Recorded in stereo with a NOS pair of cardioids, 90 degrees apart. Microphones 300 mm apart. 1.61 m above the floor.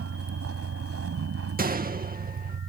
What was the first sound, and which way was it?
A vehicle, 50° right.